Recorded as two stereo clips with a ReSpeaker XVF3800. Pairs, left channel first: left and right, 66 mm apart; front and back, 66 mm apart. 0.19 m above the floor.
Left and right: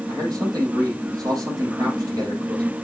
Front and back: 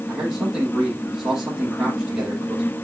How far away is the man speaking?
About 7.5 m.